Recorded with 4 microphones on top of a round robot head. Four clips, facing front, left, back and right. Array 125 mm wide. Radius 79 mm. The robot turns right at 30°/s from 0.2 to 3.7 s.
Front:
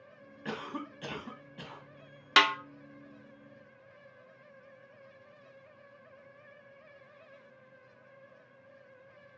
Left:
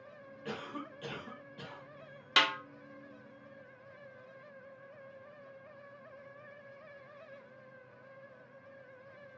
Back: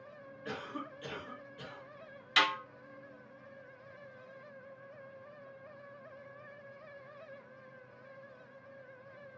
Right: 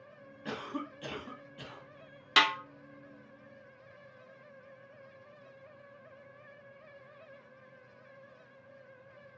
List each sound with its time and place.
0.5 s a cough: 15° right, 1.4 m; by 1.8 s 25° left, 1.4 m
2.4 s a snare drum: 5° left, 0.6 m; by 2.5 s 10° left, 0.6 m